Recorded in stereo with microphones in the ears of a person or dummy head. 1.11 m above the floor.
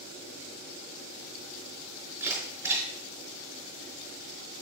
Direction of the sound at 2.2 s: 15° right (ahead or behind).